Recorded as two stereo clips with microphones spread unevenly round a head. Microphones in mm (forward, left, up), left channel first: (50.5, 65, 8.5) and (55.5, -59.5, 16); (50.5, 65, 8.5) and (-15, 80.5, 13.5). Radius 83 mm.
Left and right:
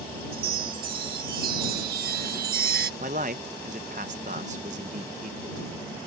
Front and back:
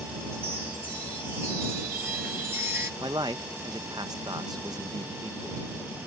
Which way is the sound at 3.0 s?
135° right.